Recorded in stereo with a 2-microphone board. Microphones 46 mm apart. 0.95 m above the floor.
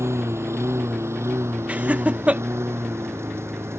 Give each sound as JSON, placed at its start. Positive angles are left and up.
{"t": 0.0, "sound": "a lawn mower", "side_deg": -85}
{"t": 1.7, "sound": "laughter", "side_deg": -30}